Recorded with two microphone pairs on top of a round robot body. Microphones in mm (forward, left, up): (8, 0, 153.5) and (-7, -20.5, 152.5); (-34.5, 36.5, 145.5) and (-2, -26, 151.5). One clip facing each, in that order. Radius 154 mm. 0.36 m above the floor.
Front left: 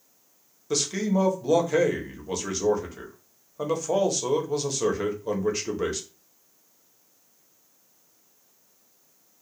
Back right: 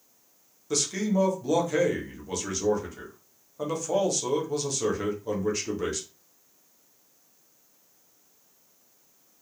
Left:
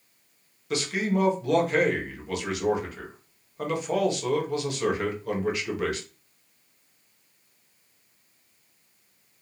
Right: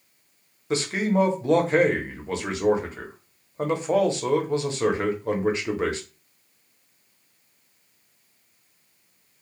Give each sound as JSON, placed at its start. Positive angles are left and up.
{"t": 0.7, "sound": "a man speaking", "azimuth_deg": -20, "distance_m": 0.9}